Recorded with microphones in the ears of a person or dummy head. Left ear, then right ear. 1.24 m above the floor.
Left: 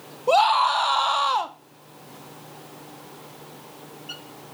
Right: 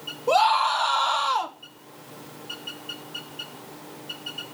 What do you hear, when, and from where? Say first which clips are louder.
0.3 s a scream: left 2 dB; 10° left (ahead or behind), 0.9 m